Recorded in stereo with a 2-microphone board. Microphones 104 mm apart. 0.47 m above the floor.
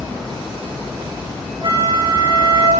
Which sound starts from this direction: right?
A flute, at 1.6 s.